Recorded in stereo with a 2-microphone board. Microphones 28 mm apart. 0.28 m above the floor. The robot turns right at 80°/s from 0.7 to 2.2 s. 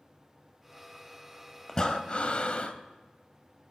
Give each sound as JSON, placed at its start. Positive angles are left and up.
{"t": 1.7, "sound": "breathing", "azimuth_deg": 30, "distance_m": 0.5}